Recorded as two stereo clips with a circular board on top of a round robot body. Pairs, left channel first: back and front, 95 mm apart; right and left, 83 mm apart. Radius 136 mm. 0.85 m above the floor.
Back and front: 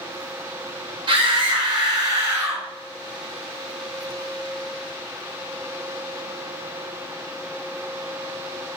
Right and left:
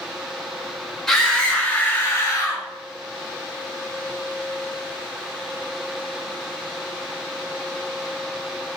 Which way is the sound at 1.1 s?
5° right.